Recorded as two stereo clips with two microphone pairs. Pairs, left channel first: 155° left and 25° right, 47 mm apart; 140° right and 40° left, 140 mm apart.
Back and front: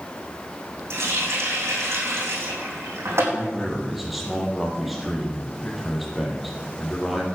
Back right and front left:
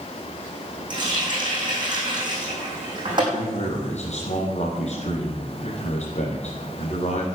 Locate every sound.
0.9 s a running tap: 15° right, 4 m
3.3 s a man speaking: 115° right, 4 m